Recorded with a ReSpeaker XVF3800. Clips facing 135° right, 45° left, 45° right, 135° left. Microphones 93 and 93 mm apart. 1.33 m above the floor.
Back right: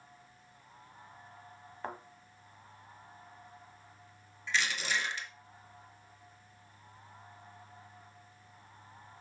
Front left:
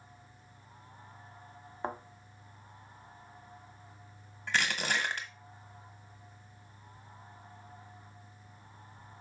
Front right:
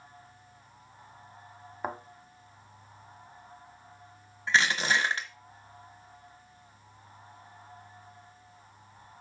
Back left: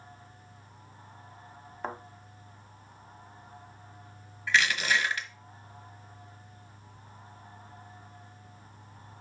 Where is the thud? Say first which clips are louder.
Front left 4 dB, front right 1 dB; 20° left, 1.2 m.